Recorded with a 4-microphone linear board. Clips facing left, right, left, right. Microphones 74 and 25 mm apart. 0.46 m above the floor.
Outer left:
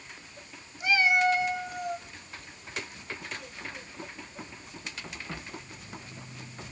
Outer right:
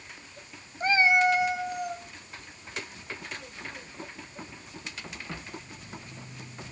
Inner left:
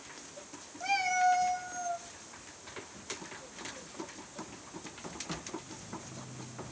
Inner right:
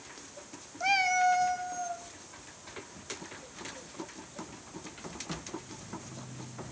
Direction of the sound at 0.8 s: 45° right (ahead or behind).